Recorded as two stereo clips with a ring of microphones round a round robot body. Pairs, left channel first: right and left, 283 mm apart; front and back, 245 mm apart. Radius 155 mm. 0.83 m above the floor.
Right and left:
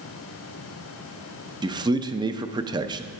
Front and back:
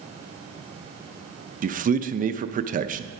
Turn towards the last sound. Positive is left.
turn(degrees=155)